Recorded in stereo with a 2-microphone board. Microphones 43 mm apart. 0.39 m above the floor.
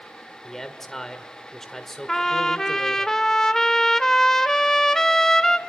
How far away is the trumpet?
About 0.8 m.